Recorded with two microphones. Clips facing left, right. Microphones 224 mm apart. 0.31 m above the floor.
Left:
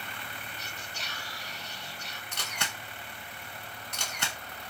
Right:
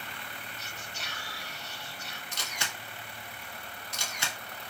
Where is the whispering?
35° left (ahead or behind), 1.3 m.